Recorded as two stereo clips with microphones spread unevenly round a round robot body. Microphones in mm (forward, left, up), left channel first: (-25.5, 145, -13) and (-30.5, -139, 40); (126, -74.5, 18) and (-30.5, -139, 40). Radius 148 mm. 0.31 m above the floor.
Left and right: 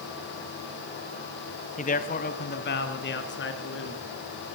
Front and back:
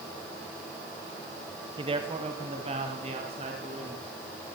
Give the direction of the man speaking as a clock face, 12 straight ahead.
7 o'clock.